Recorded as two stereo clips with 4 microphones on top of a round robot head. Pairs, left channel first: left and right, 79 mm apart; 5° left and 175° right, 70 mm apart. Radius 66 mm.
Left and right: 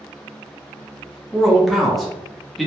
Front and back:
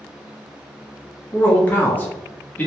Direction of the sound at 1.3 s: Straight ahead.